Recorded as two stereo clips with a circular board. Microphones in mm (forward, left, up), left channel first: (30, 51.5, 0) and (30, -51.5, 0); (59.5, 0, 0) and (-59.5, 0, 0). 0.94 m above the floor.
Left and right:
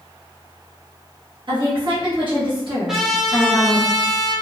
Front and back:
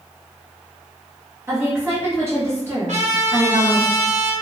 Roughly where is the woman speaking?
Behind right.